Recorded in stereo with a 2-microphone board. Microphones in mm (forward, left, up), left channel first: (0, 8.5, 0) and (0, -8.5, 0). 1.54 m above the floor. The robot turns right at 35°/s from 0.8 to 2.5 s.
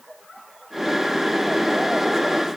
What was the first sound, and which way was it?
Only background noise.